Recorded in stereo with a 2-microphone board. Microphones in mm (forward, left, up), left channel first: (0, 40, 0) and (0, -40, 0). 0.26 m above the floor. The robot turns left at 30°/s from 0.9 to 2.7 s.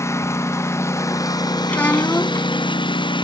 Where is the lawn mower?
145° left; by 3.2 s 90° left.